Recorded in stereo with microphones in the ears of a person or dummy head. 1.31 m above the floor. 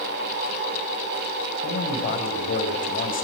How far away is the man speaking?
About 6 m.